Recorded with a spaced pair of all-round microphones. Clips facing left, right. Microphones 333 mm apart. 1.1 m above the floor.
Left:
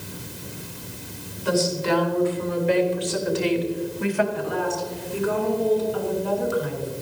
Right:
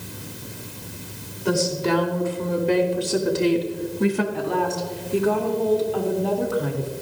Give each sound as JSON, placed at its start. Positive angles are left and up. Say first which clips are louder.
{"t": 1.4, "sound": "a woman speaking", "louder": "right 1 dB", "side_deg": -55, "distance_m": 3.5}
{"t": 4.3, "sound": "a woman speaking", "louder": "right 2 dB", "side_deg": -75, "distance_m": 3.0}